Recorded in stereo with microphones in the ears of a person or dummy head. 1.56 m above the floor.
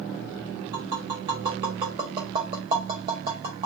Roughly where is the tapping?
Right.